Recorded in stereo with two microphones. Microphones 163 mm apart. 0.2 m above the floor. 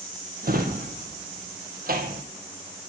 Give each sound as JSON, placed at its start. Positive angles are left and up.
{"t": 0.4, "sound": "a drawer", "side_deg": -65, "distance_m": 2.5}